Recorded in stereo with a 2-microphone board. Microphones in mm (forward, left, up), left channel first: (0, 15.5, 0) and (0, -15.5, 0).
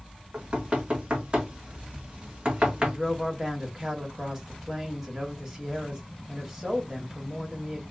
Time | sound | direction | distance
0.3 | knocking | 35° right (ahead or behind) | 1.2 m
2.8 | a woman speaking | 15° right (ahead or behind) | 1.6 m